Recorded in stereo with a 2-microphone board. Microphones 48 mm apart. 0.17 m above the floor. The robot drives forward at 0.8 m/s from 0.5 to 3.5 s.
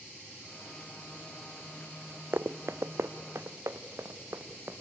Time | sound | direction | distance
2.3 | running footsteps | 60° right (ahead or behind) | 0.5 m